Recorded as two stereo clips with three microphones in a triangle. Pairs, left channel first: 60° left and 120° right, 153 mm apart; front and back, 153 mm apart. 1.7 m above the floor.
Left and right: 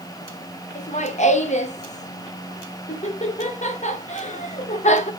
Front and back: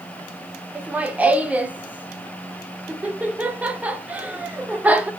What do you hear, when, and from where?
0.8 s laughter: 100° left, 0.8 m